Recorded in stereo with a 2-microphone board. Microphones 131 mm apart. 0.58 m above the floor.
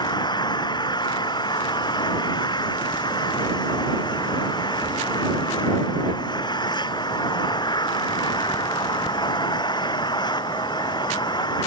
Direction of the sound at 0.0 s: 35° left (ahead or behind).